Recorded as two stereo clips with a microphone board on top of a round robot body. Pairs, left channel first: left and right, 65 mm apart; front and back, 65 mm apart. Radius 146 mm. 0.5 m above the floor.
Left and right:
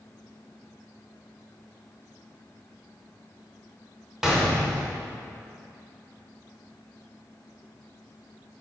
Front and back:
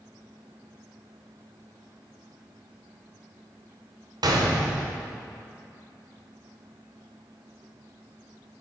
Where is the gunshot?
175° right, 0.9 m.